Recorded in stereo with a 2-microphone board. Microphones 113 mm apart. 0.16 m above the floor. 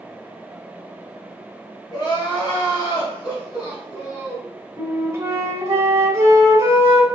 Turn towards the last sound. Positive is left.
turn(degrees=-25)  # may be behind; listen again after turning